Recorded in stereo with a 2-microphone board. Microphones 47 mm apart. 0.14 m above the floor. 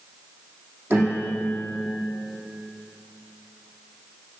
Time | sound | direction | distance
0.9 | a piano | 40° right (ahead or behind) | 7 m